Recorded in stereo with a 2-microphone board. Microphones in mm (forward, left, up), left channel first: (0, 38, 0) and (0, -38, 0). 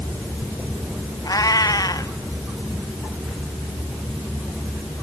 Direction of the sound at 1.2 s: 55° left (ahead or behind).